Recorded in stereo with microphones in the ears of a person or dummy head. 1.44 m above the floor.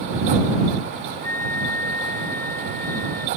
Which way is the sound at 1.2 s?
10° left (ahead or behind).